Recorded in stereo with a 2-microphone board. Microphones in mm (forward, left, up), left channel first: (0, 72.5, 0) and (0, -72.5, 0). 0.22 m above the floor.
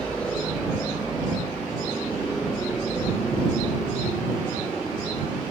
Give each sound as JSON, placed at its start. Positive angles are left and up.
{"t": 0.0, "sound": "a helicopter", "side_deg": 10}